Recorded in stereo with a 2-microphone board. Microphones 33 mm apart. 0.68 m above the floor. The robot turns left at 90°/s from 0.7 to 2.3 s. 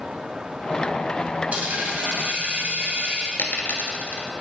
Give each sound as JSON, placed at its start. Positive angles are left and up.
{"t": 1.5, "sound": "a dropped coin", "azimuth_deg": -45, "distance_m": 1.6}
{"t": 3.4, "sound": "a dropped coin", "side_deg": 65, "distance_m": 1.3}